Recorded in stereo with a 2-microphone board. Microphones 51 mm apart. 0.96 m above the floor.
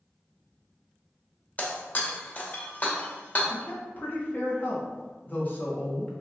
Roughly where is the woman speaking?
Left.